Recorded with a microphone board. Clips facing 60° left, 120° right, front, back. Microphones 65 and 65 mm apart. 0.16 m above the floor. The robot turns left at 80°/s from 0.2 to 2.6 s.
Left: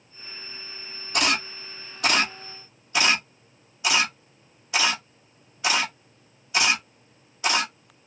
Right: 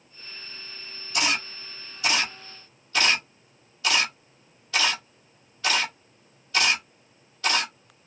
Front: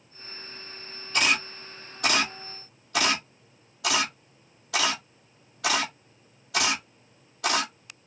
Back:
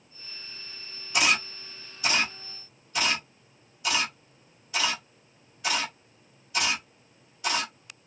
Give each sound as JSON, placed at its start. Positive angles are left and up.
{"t": 1.1, "sound": "a camera shutter", "azimuth_deg": 105, "distance_m": 1.1}